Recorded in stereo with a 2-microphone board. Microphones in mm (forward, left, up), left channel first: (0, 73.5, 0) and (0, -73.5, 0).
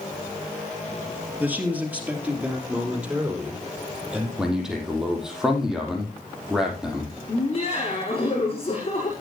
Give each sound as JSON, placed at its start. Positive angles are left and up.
{"t": 1.4, "sound": "a man speaking", "side_deg": -10, "distance_m": 3.0}
{"t": 4.4, "sound": "a man speaking", "side_deg": -5, "distance_m": 5.0}
{"t": 7.3, "sound": "laughter", "side_deg": 40, "distance_m": 6.0}